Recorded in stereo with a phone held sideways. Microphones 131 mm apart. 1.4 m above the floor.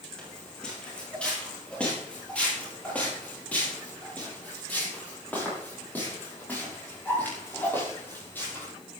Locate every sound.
0.2 s footsteps: 5° left (ahead or behind), 7 m; by 8.7 s 15° left (ahead or behind), 12 m